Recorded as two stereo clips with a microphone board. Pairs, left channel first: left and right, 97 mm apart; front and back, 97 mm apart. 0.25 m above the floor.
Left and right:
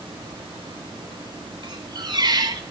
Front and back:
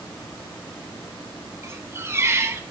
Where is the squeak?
120° right, 1.0 m.